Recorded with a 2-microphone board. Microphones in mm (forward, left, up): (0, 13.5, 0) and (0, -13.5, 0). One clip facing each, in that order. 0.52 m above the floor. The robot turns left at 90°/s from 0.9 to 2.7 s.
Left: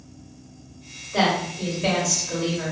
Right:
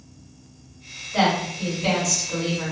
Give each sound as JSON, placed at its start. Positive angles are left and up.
{"t": 1.1, "sound": "a woman speaking", "azimuth_deg": 155, "distance_m": 1.8}